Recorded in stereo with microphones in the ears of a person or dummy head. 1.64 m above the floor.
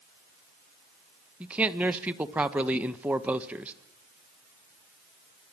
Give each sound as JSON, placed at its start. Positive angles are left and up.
{"t": 1.4, "sound": "a man speaking", "side_deg": -5, "distance_m": 1.5}